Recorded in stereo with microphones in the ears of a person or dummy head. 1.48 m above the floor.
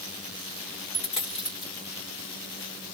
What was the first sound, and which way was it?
A dropped coin, 25° left (ahead or behind).